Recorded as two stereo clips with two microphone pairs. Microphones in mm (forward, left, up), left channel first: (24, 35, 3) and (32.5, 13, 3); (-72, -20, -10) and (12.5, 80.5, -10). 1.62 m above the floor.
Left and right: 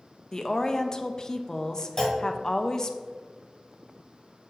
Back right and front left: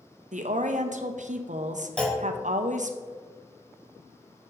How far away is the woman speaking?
About 0.8 m.